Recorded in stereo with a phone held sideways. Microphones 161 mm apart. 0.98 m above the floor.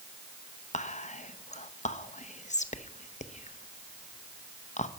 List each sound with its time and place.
0.7 s whispering: 50° left (ahead or behind), 0.6 m